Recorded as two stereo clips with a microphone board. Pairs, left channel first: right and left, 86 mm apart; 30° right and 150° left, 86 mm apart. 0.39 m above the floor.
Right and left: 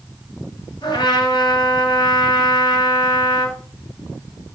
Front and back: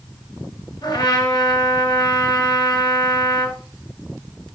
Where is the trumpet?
65° right, 5 m.